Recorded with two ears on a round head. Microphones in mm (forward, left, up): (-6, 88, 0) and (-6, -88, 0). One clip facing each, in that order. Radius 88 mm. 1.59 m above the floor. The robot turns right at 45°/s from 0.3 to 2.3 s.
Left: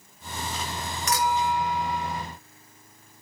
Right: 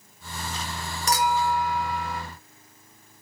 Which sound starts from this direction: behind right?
A clink, at 1.1 s.